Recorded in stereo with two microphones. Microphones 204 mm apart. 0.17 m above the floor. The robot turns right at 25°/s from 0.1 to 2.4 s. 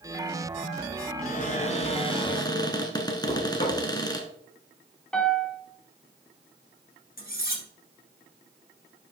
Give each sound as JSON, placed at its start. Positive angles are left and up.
{"t": 1.2, "sound": "a cupboard door", "azimuth_deg": 125, "distance_m": 1.2}
{"t": 3.3, "sound": "knocking", "side_deg": 35, "distance_m": 2.5}
{"t": 5.1, "sound": "a piano", "side_deg": 5, "distance_m": 1.2}
{"t": 7.2, "sound": "cutlery clinking", "side_deg": 45, "distance_m": 1.7}